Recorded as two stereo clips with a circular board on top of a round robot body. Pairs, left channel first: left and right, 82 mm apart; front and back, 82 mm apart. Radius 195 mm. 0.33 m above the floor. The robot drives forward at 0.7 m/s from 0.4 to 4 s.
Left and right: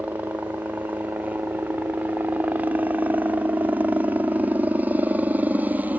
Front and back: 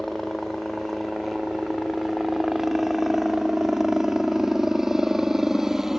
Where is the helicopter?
85° right; by 6.0 s 105° right.